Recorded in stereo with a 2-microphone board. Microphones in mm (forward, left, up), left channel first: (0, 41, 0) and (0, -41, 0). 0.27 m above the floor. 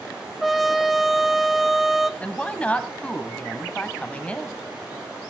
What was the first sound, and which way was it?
A trumpet, centre (ahead or behind).